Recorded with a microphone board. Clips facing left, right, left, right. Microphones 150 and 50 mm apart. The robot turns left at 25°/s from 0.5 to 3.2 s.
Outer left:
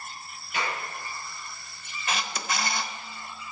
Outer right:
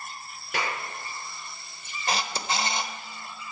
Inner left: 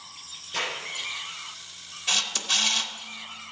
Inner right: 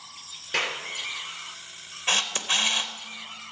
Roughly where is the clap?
Right.